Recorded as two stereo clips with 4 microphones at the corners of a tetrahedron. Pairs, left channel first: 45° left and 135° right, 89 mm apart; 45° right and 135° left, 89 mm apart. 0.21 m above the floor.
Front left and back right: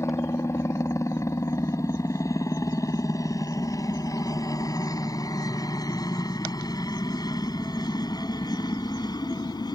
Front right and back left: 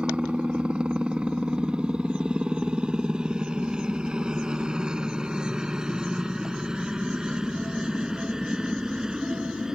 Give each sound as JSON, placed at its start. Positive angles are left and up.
{"t": 0.0, "sound": "a helicopter", "azimuth_deg": 65}